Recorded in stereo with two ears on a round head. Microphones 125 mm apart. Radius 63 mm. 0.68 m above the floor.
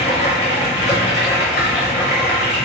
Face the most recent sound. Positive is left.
turn(degrees=70)  # may be behind; listen again after turning